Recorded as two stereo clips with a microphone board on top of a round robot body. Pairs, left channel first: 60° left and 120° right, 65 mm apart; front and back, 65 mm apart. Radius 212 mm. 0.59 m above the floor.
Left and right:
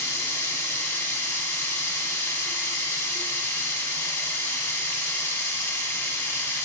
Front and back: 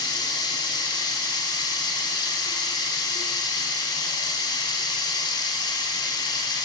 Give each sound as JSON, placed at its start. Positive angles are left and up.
{"t": 0.0, "sound": "running water", "azimuth_deg": 5, "distance_m": 0.7}